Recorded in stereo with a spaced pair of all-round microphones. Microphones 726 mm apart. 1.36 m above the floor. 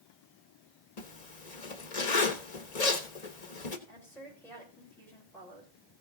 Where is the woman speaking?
5° left (ahead or behind), 5.5 m.